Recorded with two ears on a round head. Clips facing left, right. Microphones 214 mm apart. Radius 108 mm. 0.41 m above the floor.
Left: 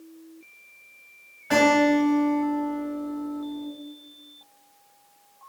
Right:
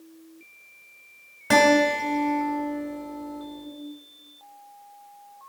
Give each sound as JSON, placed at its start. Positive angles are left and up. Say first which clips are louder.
{"t": 1.5, "sound": "a guitar", "louder": "left 1 dB", "side_deg": -65, "distance_m": 1.1}